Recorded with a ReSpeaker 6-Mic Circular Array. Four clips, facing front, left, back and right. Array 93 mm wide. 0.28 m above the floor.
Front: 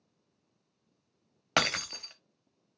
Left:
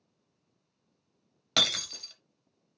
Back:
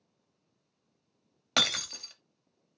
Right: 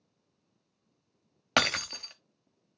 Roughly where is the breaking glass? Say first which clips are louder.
Right 6 dB, front 3 dB; ahead right.